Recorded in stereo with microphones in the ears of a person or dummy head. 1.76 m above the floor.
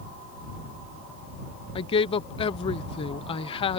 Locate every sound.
1.8 s a woman speaking: 35° left (ahead or behind)